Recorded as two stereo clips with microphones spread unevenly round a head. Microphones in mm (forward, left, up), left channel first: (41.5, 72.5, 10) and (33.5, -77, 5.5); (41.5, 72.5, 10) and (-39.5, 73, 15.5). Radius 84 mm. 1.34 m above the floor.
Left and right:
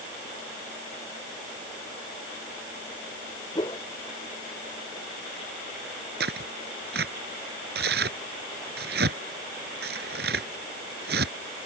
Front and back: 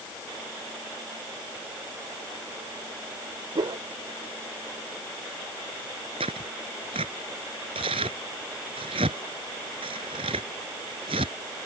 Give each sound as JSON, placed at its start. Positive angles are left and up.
{"t": 3.5, "sound": "a whoosh", "azimuth_deg": 155}
{"t": 6.2, "sound": "tearing paper", "azimuth_deg": -130}